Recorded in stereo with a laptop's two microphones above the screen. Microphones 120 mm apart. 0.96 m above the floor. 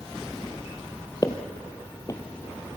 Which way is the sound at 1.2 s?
35° left (ahead or behind).